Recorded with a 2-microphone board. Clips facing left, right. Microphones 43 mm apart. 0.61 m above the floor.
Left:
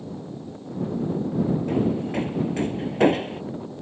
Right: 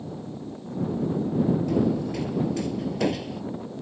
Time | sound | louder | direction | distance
1.7 | hammering | even | 35° left (ahead or behind) | ?